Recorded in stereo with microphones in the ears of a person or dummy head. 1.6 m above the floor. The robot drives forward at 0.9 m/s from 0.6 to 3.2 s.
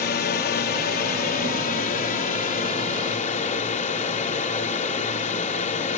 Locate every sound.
0.0 s a drone: 45° left (ahead or behind); by 6.0 s 35° left (ahead or behind)